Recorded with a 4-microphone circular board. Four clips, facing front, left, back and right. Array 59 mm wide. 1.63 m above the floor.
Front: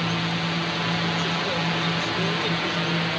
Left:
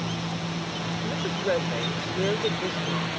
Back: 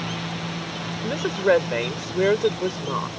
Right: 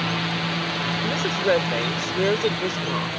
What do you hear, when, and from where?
0.0 s a drone: 65° right; by 3.2 s 10° right
1.0 s a woman speaking: 160° right